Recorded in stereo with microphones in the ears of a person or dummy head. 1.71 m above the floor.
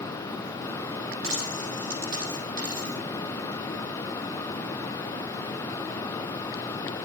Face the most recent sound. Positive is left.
turn(degrees=-40)  # may be behind; listen again after turning